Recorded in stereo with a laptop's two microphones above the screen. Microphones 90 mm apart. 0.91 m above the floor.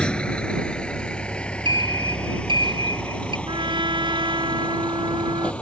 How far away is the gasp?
I don't hear a gasp.